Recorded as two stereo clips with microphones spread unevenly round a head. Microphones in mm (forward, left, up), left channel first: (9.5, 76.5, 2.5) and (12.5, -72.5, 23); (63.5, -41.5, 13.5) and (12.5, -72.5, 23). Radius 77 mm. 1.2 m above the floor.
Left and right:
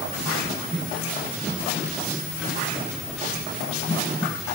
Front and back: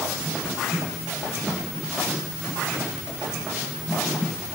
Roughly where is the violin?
I don't hear a violin.